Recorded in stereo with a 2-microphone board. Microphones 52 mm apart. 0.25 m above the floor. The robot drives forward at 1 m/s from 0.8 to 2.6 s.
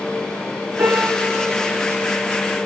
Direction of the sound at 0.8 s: 65° right (ahead or behind).